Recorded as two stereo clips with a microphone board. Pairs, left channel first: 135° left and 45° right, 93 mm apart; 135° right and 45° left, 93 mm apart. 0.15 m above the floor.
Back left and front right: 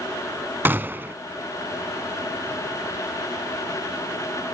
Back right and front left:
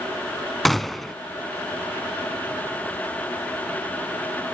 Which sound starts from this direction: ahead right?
A gunshot, at 0.7 s.